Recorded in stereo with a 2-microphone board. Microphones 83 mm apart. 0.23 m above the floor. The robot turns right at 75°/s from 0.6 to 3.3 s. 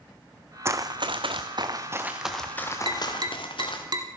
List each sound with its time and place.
0.7 s running footsteps: 30° right (ahead or behind), 0.6 m; by 3.8 s 75° left (ahead or behind), 2.5 m
2.9 s tapping: 70° right (ahead or behind), 1.1 m; by 4.1 s 50° right (ahead or behind), 1.1 m